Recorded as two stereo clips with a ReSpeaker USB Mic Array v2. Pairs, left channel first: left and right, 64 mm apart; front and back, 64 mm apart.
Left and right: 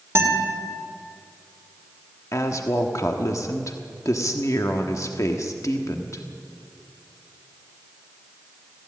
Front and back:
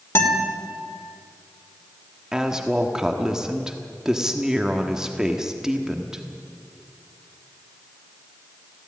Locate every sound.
0.1 s a guitar: 45° right, 2.5 m
2.3 s a woman speaking: 100° left, 1.3 m